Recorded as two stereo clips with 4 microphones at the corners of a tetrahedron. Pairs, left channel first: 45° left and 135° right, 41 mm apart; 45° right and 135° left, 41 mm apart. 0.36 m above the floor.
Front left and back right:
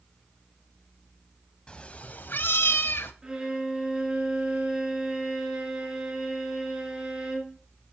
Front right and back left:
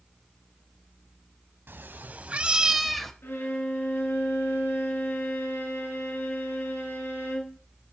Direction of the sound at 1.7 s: 110° left.